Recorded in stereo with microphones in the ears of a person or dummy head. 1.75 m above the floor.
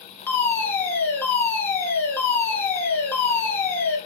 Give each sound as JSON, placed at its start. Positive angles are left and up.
{"t": 0.3, "sound": "a fire alarm", "side_deg": 15, "distance_m": 5.0}